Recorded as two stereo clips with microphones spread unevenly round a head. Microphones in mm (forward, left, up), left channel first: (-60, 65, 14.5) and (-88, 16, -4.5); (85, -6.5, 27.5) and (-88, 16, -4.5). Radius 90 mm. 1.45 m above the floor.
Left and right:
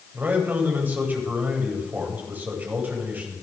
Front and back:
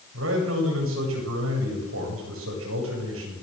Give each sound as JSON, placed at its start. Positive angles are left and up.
{"t": 0.1, "sound": "a man speaking", "azimuth_deg": -175, "distance_m": 8.5}